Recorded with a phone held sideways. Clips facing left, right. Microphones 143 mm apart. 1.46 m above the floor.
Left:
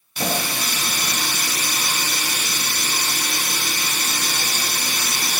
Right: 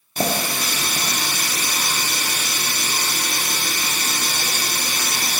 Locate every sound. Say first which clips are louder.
0.2 s a running tap: right 2 dB; 45° right (ahead or behind), 0.6 m